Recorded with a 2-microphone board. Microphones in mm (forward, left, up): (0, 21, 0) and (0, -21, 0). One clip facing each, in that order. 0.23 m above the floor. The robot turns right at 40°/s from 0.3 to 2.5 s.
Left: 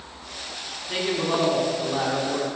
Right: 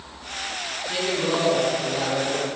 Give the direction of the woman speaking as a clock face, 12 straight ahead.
11 o'clock.